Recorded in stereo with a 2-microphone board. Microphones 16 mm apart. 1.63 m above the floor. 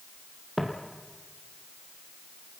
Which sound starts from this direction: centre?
Footsteps, at 0.6 s.